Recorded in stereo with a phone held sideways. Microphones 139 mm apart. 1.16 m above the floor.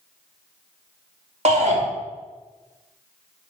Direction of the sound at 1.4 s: 55° right (ahead or behind).